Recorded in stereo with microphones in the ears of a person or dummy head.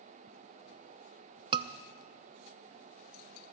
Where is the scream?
30° right (ahead or behind), 0.7 m.